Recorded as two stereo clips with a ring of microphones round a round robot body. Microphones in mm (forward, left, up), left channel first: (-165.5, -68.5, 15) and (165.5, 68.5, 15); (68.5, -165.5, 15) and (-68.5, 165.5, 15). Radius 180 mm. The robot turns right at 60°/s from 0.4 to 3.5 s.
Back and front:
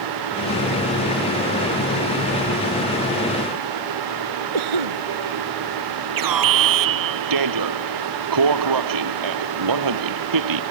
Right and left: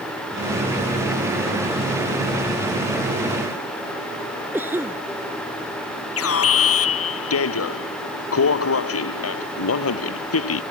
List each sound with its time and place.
4.5 s a cough: 30° left
6.2 s an alarm: 15° right